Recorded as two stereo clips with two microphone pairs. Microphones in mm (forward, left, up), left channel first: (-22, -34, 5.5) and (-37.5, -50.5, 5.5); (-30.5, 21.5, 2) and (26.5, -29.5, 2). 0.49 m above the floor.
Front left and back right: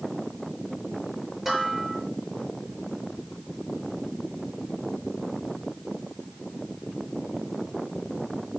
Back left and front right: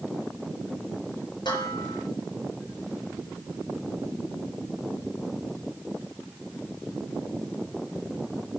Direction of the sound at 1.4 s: 155° left.